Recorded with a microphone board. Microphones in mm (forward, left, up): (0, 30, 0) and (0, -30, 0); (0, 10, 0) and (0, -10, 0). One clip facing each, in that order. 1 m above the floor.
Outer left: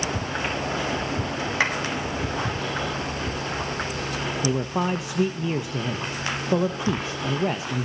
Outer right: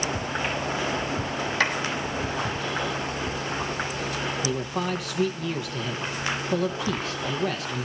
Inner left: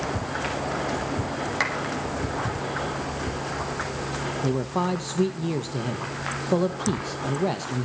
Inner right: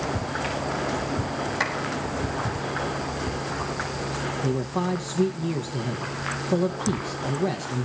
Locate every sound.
1.6 s a clap: 20° left (ahead or behind), 5.5 m
4.4 s a man speaking: 25° left (ahead or behind), 0.9 m